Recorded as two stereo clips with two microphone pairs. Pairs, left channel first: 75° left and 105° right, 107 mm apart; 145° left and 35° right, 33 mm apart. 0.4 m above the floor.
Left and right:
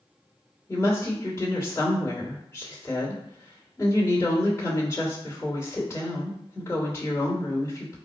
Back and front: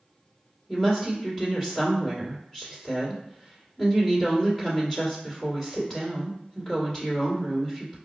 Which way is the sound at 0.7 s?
100° left.